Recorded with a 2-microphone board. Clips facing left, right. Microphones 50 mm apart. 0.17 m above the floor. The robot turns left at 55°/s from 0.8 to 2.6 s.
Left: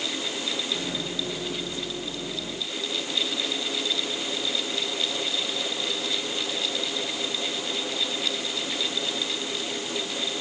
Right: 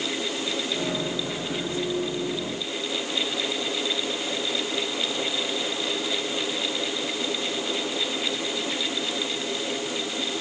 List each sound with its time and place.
Only background noise.